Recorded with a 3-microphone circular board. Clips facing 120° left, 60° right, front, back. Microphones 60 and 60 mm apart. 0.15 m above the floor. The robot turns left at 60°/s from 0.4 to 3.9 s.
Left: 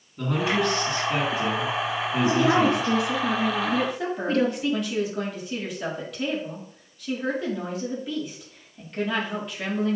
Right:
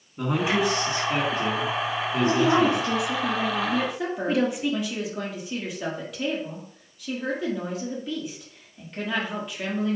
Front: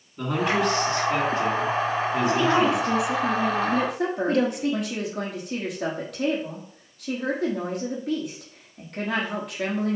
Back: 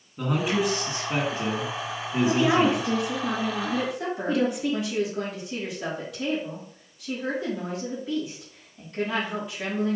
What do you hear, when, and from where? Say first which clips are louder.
0.2 s a man speaking: right 1 dB, front 2 dB; 105° right, 1.7 m; by 3.0 s 105° left, 1.7 m
2.2 s a woman speaking: even, back 1 dB; 115° left, 3 m; by 4.7 s 15° left, 3 m
3.7 s a woman speaking: left 1 dB, front 4 dB; 35° left, 4 m; by 10.0 s 25° left, 4 m